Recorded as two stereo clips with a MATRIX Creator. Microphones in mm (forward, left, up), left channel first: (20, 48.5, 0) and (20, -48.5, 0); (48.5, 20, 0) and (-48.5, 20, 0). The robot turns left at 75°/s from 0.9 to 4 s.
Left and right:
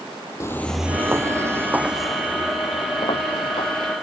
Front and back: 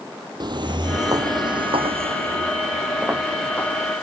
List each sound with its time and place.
0.4 s footsteps: 145° left; by 3.9 s 50° left